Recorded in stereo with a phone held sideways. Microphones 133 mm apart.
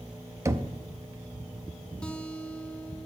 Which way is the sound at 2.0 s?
10° left (ahead or behind).